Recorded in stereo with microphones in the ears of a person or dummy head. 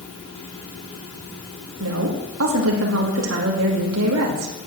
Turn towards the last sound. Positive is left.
turn(degrees=-75)  # may be behind; listen again after turning